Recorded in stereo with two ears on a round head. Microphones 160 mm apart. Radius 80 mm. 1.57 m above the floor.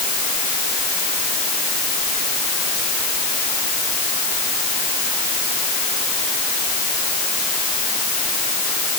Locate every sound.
Only background noise.